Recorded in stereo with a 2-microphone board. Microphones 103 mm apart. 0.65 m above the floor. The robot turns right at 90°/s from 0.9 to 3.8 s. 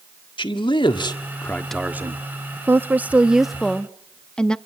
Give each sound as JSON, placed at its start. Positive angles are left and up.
{"t": 0.4, "sound": "a man speaking", "azimuth_deg": 105, "distance_m": 1.6}
{"t": 2.7, "sound": "a woman speaking", "side_deg": -20, "distance_m": 0.6}